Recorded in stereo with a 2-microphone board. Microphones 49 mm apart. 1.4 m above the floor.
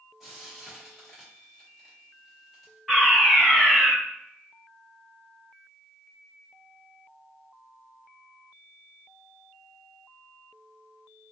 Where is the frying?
5° right (ahead or behind), 1.8 m.